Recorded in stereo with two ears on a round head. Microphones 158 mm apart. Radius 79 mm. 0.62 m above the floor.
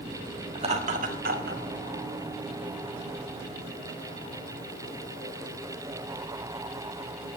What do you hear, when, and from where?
0.6 s laughter: 30° right (ahead or behind), 1.4 m; by 1.6 s 55° right (ahead or behind), 2.5 m